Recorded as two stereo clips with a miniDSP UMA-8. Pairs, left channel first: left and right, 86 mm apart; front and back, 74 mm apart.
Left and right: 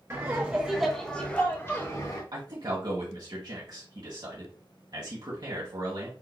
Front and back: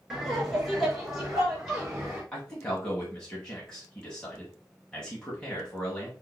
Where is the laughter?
105° right, 1.7 m; by 2.2 s 100° left, 2.0 m.